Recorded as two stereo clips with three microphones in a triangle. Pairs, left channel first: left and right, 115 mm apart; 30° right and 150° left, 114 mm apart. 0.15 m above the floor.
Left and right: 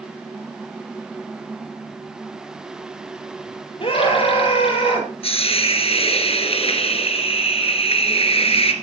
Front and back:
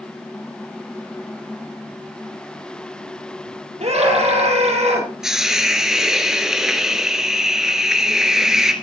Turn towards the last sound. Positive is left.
turn(degrees=65)